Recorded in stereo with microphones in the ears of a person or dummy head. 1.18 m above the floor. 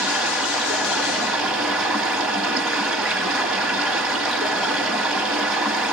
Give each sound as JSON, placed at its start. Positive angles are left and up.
{"t": 0.0, "sound": "running water", "side_deg": -5, "distance_m": 1.1}